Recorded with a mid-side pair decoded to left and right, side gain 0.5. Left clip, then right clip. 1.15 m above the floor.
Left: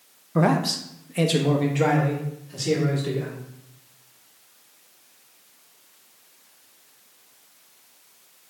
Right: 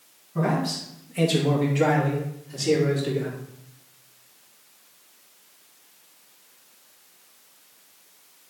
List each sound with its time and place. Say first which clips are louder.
0.3 s a man speaking: left 4 dB; 65° left, 0.7 m; by 3.4 s straight ahead, 2.5 m